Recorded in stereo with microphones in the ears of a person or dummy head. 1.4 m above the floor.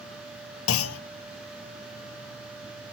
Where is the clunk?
80° left, 0.8 m.